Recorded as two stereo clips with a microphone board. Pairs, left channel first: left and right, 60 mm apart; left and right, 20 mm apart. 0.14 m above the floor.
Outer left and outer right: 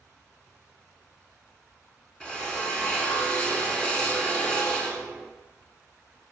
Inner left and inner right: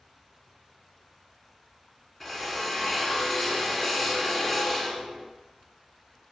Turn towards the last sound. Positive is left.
turn(degrees=15)  # may be behind; listen again after turning